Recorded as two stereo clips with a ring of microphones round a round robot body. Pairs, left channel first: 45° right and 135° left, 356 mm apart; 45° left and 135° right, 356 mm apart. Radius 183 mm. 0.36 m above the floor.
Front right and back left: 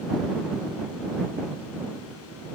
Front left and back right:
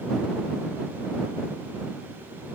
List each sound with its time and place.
Only background noise.